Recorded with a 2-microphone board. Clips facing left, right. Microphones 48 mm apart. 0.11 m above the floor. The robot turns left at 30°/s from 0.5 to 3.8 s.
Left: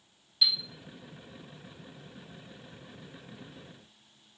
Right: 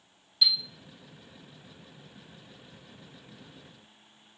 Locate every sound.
0.4 s a chime: 5° left (ahead or behind), 0.8 m